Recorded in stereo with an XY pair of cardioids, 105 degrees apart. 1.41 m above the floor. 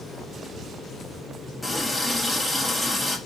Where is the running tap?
15° left, 1.6 m.